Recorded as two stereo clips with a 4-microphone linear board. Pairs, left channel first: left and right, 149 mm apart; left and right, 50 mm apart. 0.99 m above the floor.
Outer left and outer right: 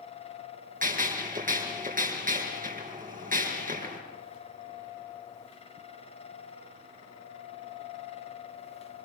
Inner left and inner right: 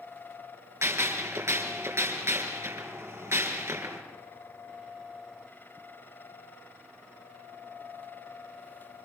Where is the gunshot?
70° right (ahead or behind), 4.5 m.